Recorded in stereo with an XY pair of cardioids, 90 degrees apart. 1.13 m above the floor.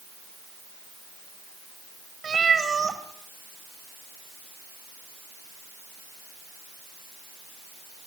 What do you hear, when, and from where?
2.2 s a cat meowing: 45° right, 3 m